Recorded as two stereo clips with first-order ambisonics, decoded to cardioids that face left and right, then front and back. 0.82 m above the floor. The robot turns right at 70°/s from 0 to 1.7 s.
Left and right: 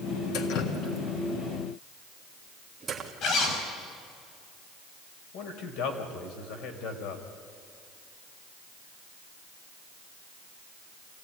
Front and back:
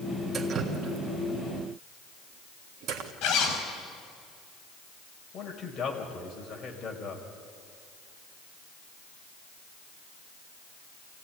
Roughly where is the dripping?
Left.